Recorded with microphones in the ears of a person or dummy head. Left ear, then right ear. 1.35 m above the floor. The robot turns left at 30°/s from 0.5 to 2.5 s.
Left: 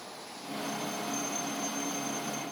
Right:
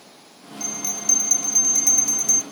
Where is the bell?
50° right, 2 m; by 2.4 s 105° right, 2 m.